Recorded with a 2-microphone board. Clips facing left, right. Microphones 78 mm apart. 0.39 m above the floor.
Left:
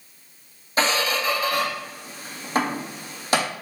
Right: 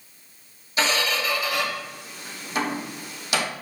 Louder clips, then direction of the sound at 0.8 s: Left 2 dB; 35° left (ahead or behind).